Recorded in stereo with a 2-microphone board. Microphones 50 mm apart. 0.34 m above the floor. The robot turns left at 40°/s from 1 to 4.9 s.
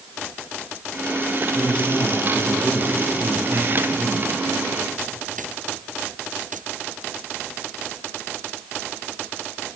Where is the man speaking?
20° left, 8 m; by 4.3 s 90° right, 8 m.